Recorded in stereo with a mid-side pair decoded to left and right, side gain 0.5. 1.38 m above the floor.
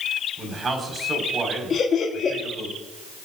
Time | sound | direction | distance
0.4 | a man speaking | 40° right | 5 m
1.7 | laughter | 45° left | 2.0 m